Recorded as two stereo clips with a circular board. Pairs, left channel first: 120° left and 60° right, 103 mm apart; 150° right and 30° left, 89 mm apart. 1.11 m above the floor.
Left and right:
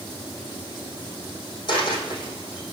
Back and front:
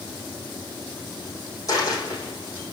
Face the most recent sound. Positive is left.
turn(degrees=160)